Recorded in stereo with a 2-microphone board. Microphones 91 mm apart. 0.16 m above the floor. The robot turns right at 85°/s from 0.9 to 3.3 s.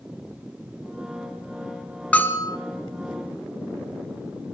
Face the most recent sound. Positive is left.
turn(degrees=115)